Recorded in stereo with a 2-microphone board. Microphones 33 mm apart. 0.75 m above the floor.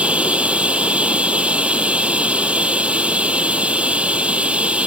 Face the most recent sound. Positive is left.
turn(degrees=-40)  # may be behind; listen again after turning